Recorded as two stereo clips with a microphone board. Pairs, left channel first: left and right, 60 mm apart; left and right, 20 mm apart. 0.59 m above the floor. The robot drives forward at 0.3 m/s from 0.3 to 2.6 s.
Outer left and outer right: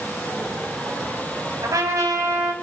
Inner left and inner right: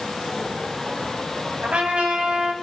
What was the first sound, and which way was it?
A trumpet, 80° right.